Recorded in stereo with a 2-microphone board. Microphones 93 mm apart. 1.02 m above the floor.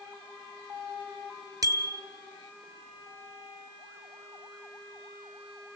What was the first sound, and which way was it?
A bicycle bell, 40° right (ahead or behind).